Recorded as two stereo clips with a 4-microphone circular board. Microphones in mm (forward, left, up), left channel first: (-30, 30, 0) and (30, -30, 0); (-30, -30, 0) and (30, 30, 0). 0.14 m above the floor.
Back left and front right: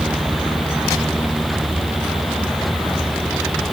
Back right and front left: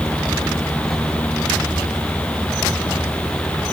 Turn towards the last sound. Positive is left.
No sound to turn to.